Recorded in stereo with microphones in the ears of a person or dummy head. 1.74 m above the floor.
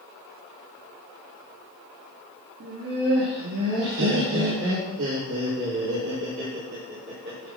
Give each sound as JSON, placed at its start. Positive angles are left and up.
{"t": 2.6, "sound": "laughter", "side_deg": -50, "distance_m": 3.5}